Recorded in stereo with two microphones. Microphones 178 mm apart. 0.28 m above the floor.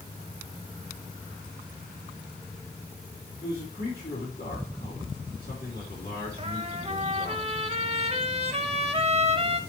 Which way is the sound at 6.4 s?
35° right (ahead or behind).